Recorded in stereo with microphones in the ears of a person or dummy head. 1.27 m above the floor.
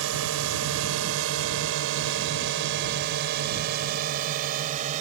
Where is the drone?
80° right; by 5.0 s 40° right (ahead or behind).